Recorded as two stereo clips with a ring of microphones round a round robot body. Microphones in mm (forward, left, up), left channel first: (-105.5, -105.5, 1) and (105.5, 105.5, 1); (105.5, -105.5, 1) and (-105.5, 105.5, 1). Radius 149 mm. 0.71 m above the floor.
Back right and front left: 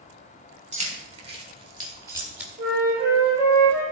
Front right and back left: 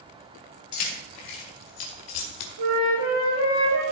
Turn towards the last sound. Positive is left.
turn(degrees=125)